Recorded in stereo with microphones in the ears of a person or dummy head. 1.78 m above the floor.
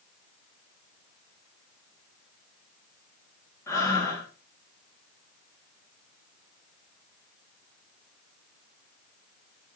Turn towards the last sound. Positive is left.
turn(degrees=15)  # may be behind; listen again after turning